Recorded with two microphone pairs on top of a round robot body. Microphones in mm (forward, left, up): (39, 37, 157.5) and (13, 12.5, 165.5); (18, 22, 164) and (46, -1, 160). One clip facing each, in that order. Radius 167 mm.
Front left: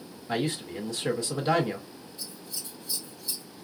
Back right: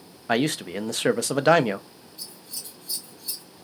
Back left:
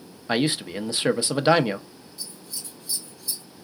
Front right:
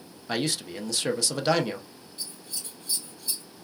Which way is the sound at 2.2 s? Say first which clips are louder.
Back right 1 dB, even; 95° right.